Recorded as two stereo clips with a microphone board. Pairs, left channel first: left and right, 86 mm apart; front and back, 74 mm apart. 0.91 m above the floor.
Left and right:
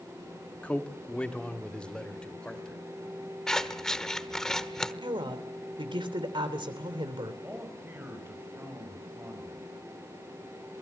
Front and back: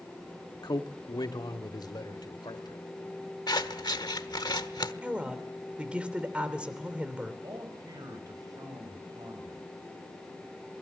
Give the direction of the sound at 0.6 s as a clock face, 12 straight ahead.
11 o'clock.